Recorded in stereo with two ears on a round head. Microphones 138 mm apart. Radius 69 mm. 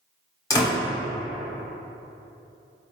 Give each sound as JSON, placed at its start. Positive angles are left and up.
{"t": 0.5, "sound": "a door slam", "side_deg": 25, "distance_m": 1.5}